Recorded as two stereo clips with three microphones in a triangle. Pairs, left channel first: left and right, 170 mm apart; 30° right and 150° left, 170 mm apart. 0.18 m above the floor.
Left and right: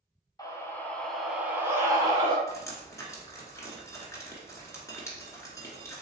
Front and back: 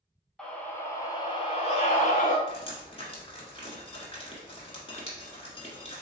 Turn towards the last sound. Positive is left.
turn(degrees=20)